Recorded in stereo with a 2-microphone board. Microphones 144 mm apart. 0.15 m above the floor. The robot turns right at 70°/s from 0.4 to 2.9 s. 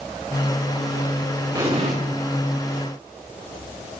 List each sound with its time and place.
1.6 s an explosion: 25° right (ahead or behind), 3.5 m; by 1.9 s 55° right (ahead or behind), 3.5 m